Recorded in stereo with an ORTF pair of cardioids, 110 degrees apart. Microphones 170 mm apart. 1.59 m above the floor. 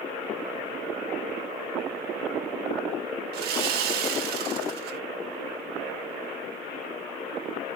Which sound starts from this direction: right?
Sawing, at 3.3 s.